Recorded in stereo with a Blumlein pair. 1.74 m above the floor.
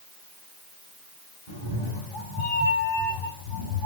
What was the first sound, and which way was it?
A cat meowing, 45° left.